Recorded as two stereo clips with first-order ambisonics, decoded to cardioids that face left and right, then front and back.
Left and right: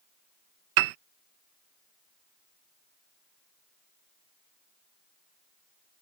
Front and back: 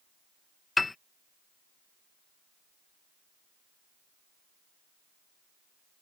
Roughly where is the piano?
Right.